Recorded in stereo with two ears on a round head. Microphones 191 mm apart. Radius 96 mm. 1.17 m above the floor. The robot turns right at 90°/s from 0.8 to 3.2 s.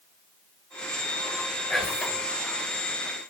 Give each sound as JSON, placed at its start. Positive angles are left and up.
{"t": 1.7, "sound": "whispering", "azimuth_deg": 170, "distance_m": 1.9}